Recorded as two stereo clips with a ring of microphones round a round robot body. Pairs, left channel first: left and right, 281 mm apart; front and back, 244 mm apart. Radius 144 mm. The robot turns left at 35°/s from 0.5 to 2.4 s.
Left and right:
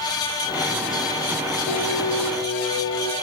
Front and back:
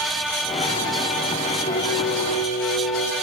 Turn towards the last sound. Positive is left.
turn(degrees=40)